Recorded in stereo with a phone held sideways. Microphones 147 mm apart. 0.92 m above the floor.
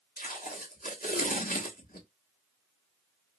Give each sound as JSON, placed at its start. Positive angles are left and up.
{"t": 0.2, "sound": "tape being pulled", "side_deg": 85, "distance_m": 1.0}